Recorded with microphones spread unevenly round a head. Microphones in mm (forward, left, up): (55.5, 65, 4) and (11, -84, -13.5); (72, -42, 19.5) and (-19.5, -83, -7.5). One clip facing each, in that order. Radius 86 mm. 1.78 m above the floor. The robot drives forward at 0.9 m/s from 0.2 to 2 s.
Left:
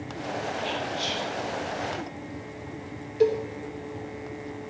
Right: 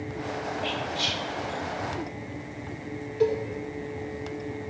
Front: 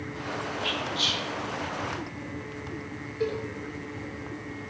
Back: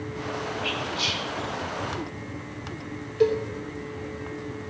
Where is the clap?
No clap in this recording.